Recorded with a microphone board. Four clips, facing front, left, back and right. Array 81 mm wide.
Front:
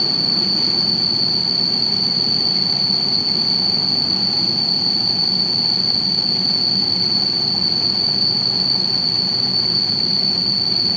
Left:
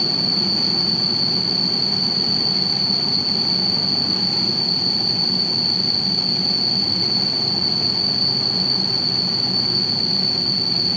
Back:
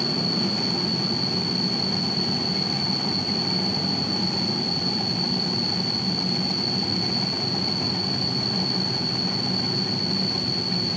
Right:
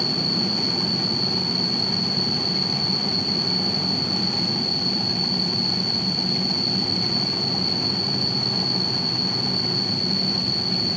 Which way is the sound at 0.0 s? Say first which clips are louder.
Even, back 1 dB; 55° left.